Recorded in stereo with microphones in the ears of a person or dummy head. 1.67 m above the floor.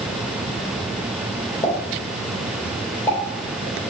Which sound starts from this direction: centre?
A pop, at 1.6 s.